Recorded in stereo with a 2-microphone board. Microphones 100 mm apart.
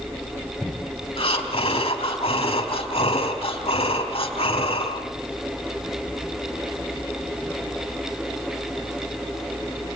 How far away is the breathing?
About 3.5 m.